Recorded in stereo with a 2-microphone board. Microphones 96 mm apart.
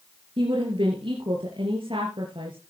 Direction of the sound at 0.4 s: 60° right (ahead or behind).